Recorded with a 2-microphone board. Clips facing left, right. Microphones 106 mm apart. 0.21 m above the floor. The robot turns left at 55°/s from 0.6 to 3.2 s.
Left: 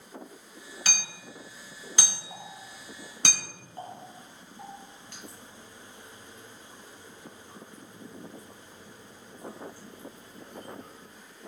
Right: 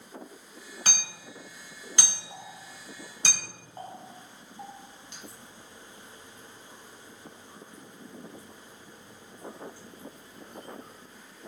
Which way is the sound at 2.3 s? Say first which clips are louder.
Left 1 dB; 15° left (ahead or behind).